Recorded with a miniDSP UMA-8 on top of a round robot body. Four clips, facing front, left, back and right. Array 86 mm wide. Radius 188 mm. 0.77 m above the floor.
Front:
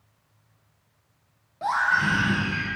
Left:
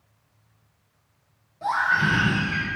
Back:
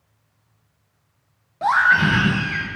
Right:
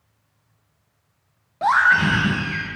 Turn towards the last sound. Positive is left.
turn(degrees=-160)